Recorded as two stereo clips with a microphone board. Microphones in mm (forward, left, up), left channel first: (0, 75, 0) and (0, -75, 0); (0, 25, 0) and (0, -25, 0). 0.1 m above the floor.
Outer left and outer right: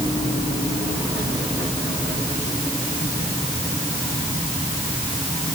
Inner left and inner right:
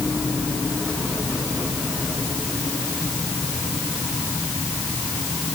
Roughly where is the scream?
No scream in this recording.